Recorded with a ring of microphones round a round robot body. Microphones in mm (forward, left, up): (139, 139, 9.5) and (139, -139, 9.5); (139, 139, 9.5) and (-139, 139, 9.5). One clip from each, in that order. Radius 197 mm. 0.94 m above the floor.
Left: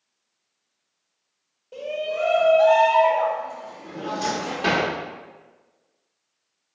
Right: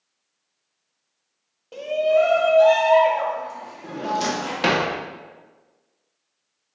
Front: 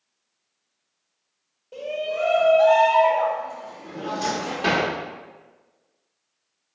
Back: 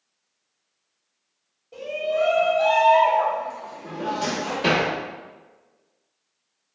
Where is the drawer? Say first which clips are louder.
Right 3 dB, even; 85° right, 0.7 m.